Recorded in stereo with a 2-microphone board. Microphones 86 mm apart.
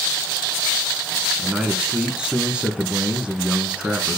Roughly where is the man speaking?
Centre.